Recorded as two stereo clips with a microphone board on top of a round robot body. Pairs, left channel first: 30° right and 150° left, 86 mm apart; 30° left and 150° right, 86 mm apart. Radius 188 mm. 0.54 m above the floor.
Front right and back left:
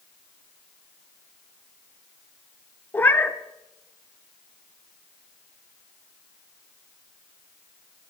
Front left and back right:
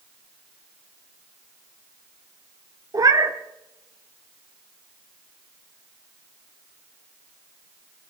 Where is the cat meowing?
100° right, 0.9 m.